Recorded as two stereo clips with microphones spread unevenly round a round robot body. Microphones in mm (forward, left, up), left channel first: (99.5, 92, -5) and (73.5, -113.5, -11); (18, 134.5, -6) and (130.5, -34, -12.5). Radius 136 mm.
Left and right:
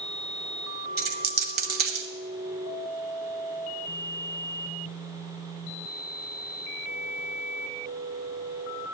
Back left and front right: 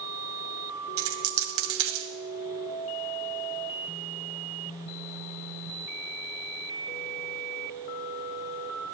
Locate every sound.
1.0 s a dropped coin: 55° right, 1.3 m